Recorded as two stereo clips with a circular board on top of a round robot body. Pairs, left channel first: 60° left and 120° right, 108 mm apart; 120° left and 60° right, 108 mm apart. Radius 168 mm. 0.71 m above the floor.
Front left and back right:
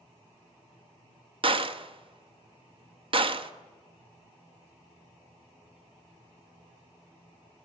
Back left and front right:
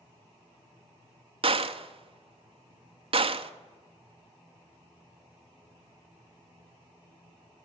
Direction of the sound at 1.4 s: 85° right.